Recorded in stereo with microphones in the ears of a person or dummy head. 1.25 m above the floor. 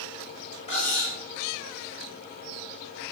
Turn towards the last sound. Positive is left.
turn(degrees=40)  # may be behind; listen again after turning